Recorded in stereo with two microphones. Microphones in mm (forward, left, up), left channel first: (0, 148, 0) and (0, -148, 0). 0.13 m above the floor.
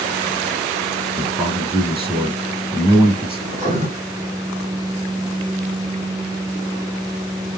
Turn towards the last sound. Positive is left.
turn(degrees=-25)  # may be behind; listen again after turning